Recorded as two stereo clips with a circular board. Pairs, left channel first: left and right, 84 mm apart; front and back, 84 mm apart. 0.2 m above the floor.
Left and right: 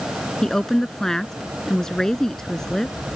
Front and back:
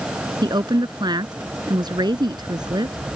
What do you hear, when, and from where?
0.4 s a woman speaking: 175° left